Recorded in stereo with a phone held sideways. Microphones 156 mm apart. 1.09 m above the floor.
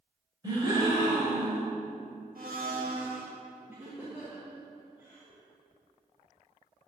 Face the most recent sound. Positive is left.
turn(degrees=-10)  # may be behind; listen again after turning